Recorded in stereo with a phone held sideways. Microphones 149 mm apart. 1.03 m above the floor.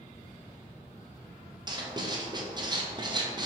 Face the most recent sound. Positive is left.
turn(degrees=-30)  # may be behind; listen again after turning